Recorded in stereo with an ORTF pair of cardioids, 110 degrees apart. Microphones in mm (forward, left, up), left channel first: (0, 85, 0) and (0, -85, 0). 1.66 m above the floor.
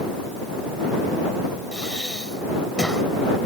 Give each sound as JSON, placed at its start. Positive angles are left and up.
{"t": 1.7, "sound": "breathing", "azimuth_deg": 5}